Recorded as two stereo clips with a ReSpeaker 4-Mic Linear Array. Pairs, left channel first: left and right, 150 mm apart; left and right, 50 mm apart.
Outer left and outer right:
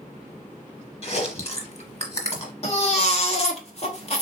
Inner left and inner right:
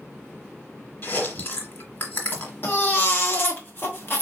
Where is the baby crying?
45° left (ahead or behind), 0.9 m.